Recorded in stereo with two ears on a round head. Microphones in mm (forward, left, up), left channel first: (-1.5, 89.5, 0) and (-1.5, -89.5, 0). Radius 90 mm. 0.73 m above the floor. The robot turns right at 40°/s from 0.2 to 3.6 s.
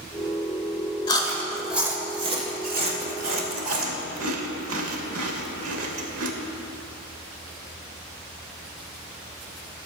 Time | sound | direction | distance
1.1 | chewing | 20° left (ahead or behind) | 1.2 m